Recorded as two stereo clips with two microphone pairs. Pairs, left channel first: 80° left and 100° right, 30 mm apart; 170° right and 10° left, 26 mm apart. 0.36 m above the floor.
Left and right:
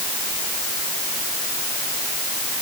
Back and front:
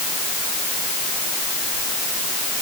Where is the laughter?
I don't hear laughter.